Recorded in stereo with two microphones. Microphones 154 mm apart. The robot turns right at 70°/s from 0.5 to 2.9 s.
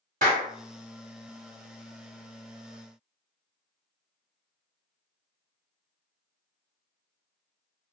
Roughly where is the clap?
Right.